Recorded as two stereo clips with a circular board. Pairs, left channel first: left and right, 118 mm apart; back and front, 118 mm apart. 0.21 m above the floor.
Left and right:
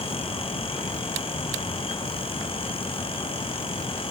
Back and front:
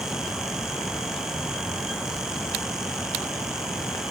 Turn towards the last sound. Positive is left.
No sound to turn to.